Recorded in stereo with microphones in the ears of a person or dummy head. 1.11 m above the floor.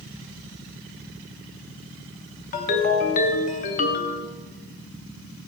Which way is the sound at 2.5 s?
45° left (ahead or behind).